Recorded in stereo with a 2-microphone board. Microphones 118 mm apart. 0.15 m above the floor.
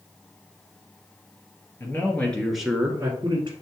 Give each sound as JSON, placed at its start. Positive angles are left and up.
{"t": 1.8, "sound": "a man speaking", "side_deg": 20, "distance_m": 2.0}